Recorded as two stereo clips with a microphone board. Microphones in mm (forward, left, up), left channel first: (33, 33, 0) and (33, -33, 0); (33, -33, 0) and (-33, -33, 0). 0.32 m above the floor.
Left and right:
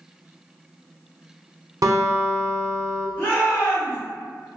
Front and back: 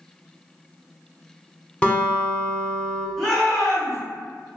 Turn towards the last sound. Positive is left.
turn(degrees=90)